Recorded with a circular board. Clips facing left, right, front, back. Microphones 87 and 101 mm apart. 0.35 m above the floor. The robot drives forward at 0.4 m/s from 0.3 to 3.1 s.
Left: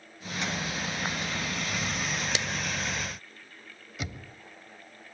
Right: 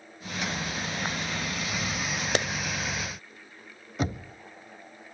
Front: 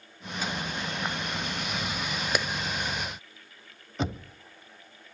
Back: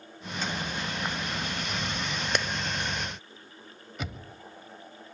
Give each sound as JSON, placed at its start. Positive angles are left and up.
{"t": 2.4, "sound": "a clap", "azimuth_deg": -85, "distance_m": 1.1}
{"t": 4.0, "sound": "knocking", "azimuth_deg": -50, "distance_m": 1.1}